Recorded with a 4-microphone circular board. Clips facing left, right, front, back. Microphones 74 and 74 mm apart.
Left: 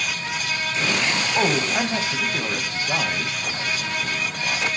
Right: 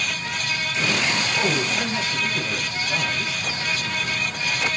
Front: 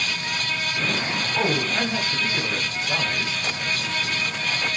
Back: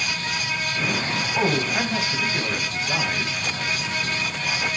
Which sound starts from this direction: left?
A man speaking, at 1.4 s.